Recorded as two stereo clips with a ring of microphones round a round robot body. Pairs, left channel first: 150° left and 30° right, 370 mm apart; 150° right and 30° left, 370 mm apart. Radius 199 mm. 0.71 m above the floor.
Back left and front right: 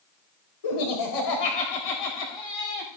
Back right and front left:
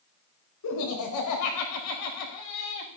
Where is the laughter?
165° left, 4.5 m; by 2.9 s straight behind, 4.5 m.